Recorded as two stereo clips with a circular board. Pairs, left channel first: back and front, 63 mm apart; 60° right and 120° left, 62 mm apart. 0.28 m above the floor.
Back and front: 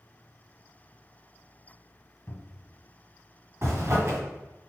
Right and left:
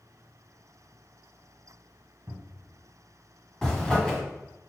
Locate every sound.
2.3 s a cupboard door: 125° left, 0.8 m
3.6 s a zipper: 20° left, 2 m